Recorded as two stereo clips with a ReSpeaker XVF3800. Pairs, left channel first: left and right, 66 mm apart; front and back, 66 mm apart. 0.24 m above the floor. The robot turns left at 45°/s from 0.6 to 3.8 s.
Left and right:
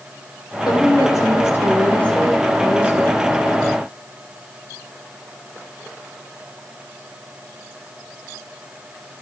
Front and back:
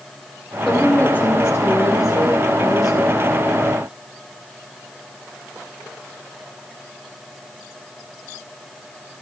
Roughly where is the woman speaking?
Left.